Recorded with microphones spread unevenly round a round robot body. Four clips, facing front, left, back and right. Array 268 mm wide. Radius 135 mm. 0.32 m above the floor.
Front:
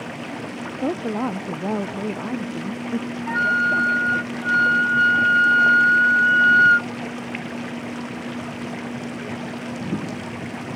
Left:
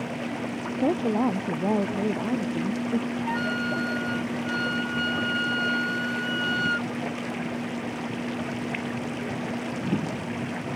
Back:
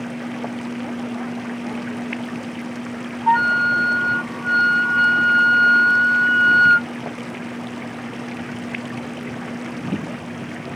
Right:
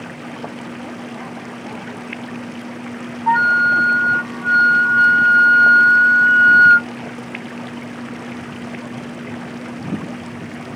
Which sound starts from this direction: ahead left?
A woman speaking, at 0.8 s.